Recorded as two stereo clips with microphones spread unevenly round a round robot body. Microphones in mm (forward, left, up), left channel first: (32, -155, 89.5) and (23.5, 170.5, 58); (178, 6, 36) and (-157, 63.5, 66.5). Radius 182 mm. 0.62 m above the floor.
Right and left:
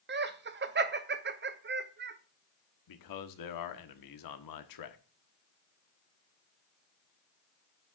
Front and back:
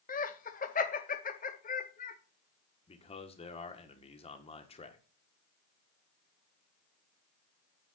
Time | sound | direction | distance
0.1 | laughter | 45° left | 0.8 m
2.9 | a man speaking | 80° right | 1.4 m